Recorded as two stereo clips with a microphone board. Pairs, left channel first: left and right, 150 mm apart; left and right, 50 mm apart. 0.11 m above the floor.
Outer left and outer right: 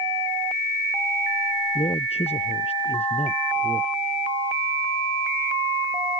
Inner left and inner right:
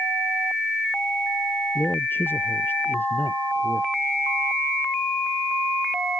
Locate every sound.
1.8 s a man speaking: 45° left (ahead or behind)